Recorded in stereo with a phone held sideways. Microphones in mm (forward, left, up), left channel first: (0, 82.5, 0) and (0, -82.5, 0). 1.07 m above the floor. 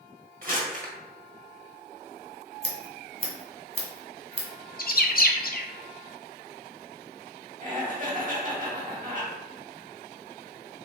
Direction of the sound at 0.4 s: 55° right (ahead or behind).